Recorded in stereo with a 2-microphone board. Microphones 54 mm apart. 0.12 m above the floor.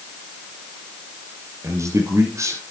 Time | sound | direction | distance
1.6 | a man speaking | 60° right (ahead or behind) | 3.5 m